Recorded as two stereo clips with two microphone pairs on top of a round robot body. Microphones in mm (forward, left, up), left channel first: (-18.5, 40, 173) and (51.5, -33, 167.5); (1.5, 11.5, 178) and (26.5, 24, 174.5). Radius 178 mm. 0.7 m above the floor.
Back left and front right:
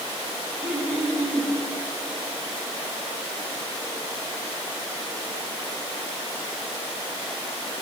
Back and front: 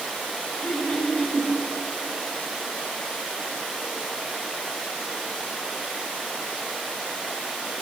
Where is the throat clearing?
115° right, 6.5 m.